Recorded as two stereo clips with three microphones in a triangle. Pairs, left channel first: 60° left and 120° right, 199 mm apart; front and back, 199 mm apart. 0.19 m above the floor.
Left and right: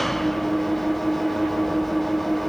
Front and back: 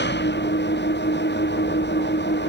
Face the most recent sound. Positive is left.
turn(degrees=-30)